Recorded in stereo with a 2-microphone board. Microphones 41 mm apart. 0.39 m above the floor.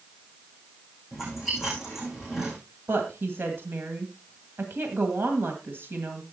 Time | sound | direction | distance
1.1 | chewing | 5° right (ahead or behind) | 9 m
2.9 | a woman speaking | 65° right (ahead or behind) | 2 m